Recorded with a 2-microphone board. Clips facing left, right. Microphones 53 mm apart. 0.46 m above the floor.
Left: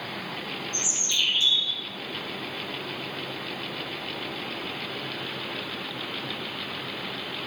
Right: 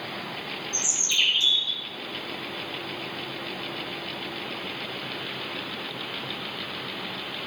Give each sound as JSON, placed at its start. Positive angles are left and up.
{"t": 0.7, "sound": "a bird", "side_deg": -65, "distance_m": 2.0}